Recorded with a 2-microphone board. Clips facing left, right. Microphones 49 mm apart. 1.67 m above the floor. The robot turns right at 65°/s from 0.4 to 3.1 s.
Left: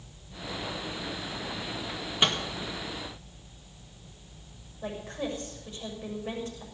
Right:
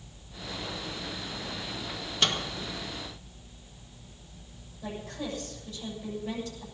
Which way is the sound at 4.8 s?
30° left (ahead or behind).